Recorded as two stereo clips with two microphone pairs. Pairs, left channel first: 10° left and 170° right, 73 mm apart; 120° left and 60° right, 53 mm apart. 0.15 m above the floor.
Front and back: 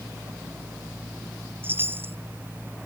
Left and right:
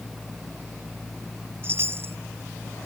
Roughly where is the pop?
No pop in this recording.